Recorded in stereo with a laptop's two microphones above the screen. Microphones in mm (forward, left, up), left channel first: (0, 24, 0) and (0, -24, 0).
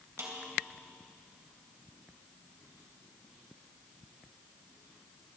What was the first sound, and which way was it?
A snare drum, 80° right.